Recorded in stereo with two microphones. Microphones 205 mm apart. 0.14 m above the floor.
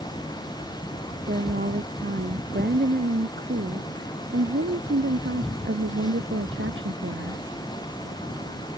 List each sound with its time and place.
1.3 s a woman speaking: 50° right (ahead or behind); by 7.4 s 75° right (ahead or behind)